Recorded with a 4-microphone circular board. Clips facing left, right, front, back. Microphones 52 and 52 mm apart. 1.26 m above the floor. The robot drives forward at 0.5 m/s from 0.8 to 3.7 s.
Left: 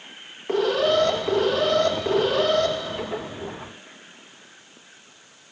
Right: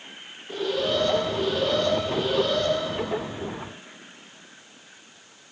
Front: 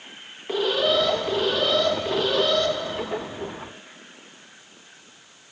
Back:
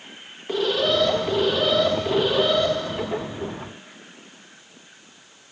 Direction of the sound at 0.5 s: 85° left.